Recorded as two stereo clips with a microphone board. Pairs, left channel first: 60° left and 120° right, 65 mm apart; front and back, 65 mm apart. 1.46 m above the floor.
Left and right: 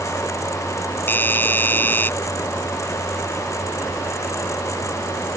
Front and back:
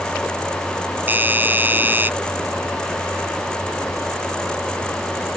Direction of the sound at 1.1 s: 120° left.